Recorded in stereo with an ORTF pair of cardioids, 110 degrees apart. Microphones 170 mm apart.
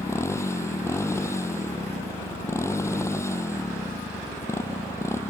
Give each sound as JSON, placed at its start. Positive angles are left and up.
{"t": 0.0, "sound": "a motorcycle", "azimuth_deg": 15}